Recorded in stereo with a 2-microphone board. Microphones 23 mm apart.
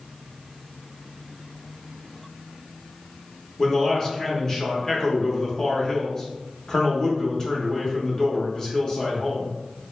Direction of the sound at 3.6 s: 30° left (ahead or behind).